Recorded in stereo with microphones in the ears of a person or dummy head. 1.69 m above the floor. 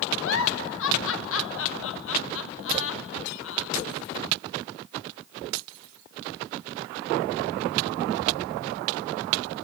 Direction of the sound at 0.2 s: 75° left (ahead or behind).